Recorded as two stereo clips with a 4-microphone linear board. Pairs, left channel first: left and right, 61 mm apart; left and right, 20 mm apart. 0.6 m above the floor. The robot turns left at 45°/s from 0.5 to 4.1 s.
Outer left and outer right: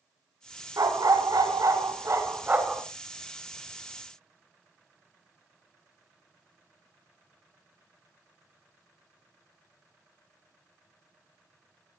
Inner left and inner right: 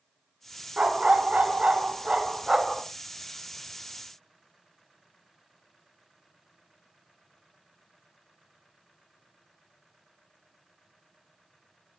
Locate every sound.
0.8 s a dog barking: 70° right, 1.7 m; by 2.8 s 165° right, 1.7 m